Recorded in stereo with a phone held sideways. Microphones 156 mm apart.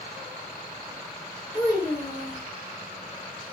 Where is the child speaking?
25° left (ahead or behind), 1.3 m.